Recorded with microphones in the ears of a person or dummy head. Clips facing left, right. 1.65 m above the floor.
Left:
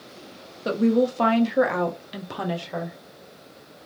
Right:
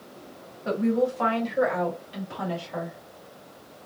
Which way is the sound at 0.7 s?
55° left (ahead or behind).